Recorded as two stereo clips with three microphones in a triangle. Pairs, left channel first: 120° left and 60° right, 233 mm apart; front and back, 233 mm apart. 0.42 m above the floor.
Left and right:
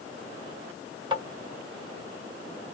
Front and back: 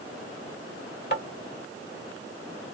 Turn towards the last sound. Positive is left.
turn(degrees=0)